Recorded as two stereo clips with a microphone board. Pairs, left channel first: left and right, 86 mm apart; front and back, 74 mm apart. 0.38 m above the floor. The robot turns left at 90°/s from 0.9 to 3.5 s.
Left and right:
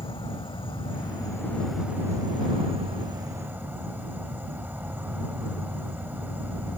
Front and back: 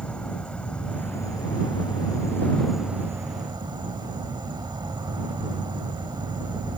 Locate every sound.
0.0 s an insect: 75° left; by 6.8 s 160° right